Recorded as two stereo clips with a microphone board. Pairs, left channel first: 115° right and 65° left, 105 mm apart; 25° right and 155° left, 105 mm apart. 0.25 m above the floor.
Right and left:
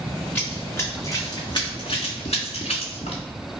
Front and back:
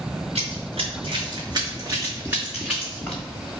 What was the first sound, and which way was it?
Running footsteps, 170° left.